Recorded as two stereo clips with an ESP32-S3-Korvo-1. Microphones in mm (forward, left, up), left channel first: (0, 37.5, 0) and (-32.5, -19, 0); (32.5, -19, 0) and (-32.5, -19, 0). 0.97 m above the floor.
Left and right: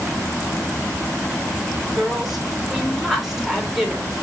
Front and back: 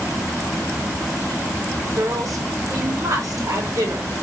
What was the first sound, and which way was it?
A woman speaking, 155° left.